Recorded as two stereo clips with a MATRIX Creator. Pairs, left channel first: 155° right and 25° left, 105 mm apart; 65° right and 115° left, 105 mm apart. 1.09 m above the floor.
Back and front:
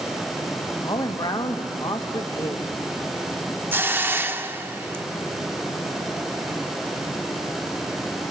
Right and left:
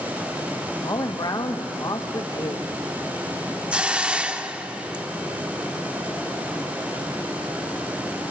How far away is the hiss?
About 0.7 m.